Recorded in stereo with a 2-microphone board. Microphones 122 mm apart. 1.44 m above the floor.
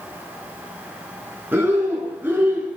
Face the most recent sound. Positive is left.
turn(degrees=-15)  # may be behind; listen again after turning